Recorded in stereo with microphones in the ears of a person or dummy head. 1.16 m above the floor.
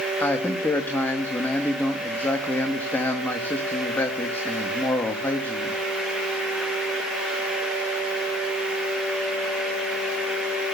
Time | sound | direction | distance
0.2 | a man speaking | 5° left (ahead or behind) | 1.6 m